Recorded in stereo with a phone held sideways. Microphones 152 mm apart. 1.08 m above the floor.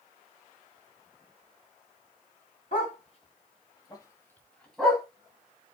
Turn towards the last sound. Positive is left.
turn(degrees=0)  # may be behind; listen again after turning